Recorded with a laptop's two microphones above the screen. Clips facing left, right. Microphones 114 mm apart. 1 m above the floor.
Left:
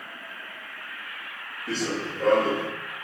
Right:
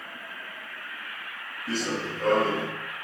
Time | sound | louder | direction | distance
1.7 | running footsteps | left 1 dB | centre (ahead or behind) | 1.8 m